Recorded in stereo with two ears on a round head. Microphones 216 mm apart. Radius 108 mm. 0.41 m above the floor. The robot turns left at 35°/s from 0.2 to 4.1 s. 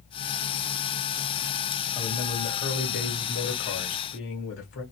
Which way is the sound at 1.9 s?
165° left.